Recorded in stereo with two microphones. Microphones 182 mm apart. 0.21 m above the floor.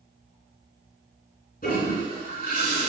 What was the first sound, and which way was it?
A toilet flushing, 55° left (ahead or behind).